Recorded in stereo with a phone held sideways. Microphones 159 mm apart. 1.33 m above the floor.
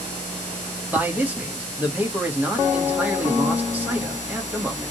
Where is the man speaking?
10° right (ahead or behind), 1.5 m.